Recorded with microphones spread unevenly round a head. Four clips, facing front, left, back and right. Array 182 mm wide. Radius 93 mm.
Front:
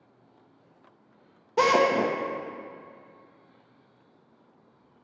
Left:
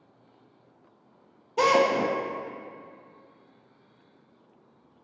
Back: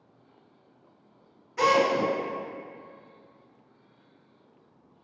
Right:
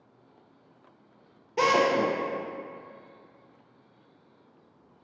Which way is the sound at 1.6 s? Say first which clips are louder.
Left 1 dB, front 1 dB; 15° right.